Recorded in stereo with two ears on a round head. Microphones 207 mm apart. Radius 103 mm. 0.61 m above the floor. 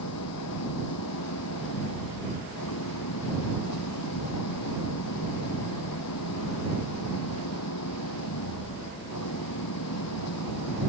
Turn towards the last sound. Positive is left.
turn(degrees=80)